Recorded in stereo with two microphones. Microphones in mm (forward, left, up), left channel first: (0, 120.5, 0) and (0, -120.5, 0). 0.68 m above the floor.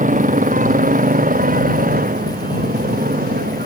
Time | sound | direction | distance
0.0 | a motorcycle | 30° right (ahead or behind) | ?